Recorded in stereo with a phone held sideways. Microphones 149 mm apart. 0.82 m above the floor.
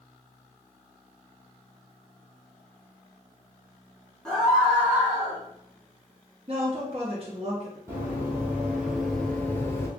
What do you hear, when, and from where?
4.2 s a scream: 5° left (ahead or behind), 1.5 m; by 5.4 s 20° right (ahead or behind), 1.6 m
6.5 s a woman speaking: 45° right (ahead or behind), 1.0 m
7.9 s running footsteps: 15° right (ahead or behind), 1.4 m; by 9.9 s 20° left (ahead or behind), 0.8 m